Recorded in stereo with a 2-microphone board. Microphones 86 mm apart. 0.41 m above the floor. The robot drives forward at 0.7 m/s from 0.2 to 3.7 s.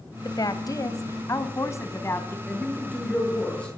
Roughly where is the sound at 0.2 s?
Left.